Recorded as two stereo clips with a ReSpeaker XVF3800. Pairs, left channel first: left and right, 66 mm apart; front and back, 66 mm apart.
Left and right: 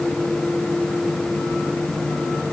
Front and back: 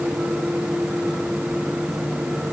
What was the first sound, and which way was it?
Only background noise.